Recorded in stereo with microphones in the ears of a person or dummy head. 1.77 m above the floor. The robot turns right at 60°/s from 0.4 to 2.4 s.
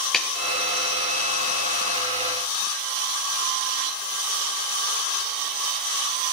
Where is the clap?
Centre (ahead or behind), 1.6 m.